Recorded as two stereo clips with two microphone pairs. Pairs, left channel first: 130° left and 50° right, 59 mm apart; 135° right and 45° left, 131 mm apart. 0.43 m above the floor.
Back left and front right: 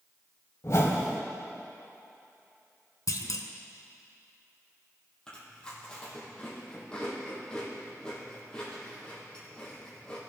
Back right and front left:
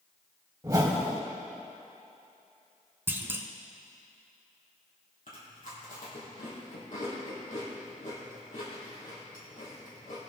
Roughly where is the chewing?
Behind right.